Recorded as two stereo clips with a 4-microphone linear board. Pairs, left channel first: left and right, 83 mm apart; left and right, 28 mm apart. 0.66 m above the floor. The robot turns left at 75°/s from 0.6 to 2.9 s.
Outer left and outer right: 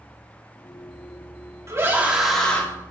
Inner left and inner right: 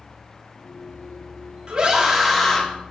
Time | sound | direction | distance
1.7 | a scream | 130° right | 1.4 m